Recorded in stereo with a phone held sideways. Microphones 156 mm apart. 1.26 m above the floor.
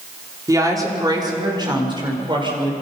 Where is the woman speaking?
20° right (ahead or behind), 3.5 m; by 2.7 s 30° right (ahead or behind), 5 m.